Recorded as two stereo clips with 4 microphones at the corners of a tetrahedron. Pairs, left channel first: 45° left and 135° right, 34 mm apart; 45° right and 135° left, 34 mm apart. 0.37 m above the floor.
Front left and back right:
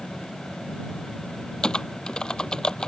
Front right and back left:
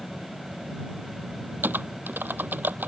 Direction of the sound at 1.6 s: 115° left.